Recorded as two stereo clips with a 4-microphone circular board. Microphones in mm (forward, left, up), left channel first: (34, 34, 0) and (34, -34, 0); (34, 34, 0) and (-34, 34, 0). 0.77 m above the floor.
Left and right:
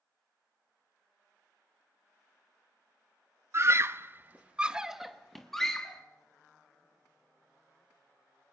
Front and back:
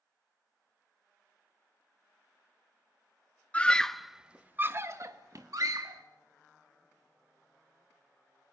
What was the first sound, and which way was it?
A scream, 65° right.